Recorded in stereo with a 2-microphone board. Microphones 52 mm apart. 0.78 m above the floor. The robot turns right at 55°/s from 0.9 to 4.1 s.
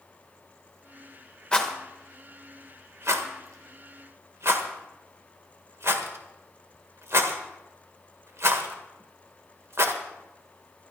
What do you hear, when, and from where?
1.5 s a rattle: 20° left (ahead or behind), 1.4 m; by 9.9 s 55° right (ahead or behind), 1.4 m